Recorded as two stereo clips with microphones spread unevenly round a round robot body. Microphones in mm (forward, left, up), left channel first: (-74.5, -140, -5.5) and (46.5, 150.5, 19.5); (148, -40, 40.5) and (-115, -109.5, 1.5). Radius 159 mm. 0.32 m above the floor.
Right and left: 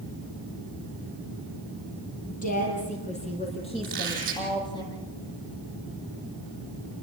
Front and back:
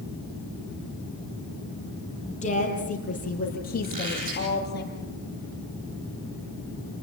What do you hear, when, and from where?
2.3 s a woman speaking: 50° right, 8 m; by 4.8 s 35° right, 8 m
3.8 s a squeak: 130° left, 9.5 m